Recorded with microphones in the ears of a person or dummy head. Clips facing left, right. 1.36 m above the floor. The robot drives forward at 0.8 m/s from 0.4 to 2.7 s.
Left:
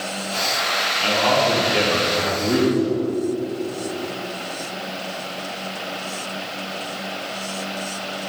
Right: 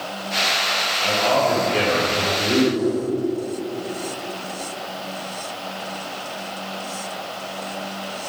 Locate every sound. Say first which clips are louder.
1.0 s a man speaking: even; 80° left, 3 m; by 2.6 s 75° left (ahead or behind), 3 m
2.7 s a whoosh: left 1 dB; 70° left (ahead or behind), 3.5 m